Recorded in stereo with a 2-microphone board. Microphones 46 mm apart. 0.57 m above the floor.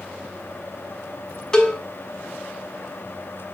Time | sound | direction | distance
1.5 | a cowbell | 15° left (ahead or behind) | 1.5 m